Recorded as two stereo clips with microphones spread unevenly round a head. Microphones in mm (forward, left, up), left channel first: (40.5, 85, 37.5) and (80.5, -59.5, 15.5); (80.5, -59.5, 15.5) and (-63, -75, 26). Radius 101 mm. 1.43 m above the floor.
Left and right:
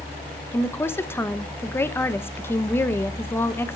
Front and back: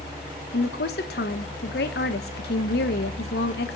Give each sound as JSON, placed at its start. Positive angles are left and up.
{"t": 0.5, "sound": "a woman speaking", "azimuth_deg": 35, "distance_m": 1.0}